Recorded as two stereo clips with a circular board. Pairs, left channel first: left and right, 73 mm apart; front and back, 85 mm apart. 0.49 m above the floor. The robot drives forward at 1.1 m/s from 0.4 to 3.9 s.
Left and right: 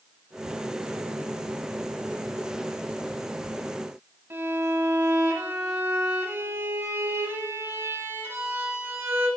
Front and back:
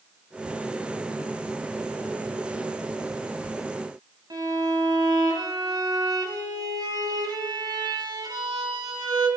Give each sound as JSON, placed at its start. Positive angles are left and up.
{"t": 4.3, "sound": "a violin", "azimuth_deg": -145, "distance_m": 2.5}